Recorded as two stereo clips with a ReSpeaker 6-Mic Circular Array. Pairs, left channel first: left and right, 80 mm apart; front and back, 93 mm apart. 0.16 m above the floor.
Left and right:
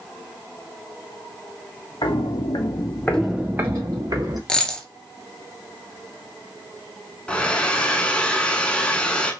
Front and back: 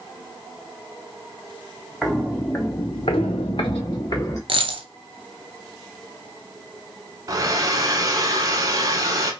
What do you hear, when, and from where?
2.0 s footsteps: 90° left, 1.1 m; by 4.4 s 50° right, 1.4 m
4.5 s a dropped coin: 170° left, 0.5 m
7.3 s a hair dryer: 160° left, 0.7 m